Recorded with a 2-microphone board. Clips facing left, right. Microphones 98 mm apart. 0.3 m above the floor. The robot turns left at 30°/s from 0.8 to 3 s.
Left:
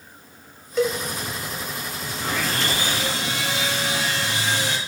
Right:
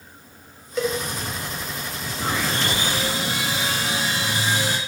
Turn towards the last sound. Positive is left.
turn(degrees=-10)  # may be behind; listen again after turning